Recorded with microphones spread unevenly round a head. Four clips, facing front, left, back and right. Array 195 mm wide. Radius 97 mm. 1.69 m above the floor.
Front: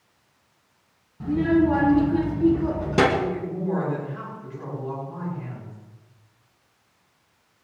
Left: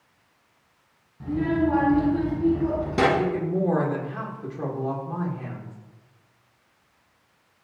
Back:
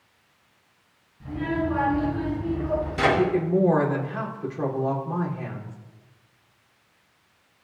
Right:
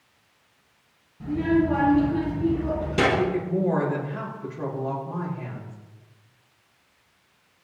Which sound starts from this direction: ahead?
A child speaking, at 1.2 s.